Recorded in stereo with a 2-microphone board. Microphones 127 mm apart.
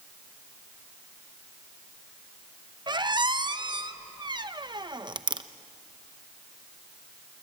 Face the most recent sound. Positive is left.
turn(degrees=-35)  # may be behind; listen again after turning